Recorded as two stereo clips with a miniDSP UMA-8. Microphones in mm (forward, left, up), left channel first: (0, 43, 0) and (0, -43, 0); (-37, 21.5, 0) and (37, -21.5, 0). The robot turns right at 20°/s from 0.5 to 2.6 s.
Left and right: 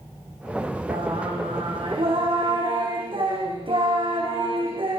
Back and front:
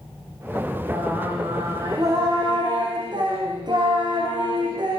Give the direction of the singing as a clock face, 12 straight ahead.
3 o'clock.